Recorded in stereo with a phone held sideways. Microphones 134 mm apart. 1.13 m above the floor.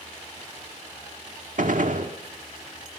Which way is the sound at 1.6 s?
75° right (ahead or behind).